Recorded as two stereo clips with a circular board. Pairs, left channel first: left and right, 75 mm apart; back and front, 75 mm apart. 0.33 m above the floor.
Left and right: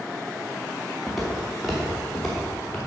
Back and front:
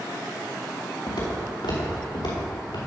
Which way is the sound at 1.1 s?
Straight behind.